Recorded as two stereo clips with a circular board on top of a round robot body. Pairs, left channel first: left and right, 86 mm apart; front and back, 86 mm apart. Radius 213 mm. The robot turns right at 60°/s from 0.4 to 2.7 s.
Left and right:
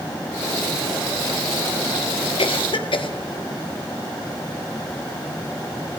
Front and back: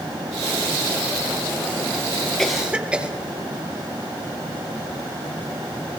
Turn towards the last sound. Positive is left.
turn(degrees=100)